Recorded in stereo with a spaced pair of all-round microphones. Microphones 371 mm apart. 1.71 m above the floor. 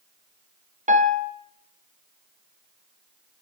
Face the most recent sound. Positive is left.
turn(degrees=-20)  # may be behind; listen again after turning